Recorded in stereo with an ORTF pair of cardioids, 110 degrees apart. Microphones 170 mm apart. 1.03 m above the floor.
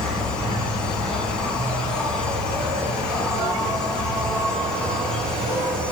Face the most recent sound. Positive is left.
turn(degrees=5)